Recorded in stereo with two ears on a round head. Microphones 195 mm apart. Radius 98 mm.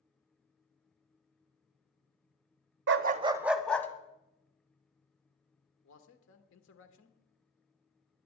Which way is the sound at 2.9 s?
55° right (ahead or behind).